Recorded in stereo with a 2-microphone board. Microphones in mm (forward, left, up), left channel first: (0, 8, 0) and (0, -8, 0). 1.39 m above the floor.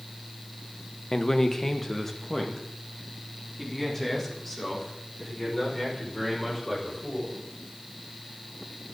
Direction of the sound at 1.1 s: 25° left (ahead or behind).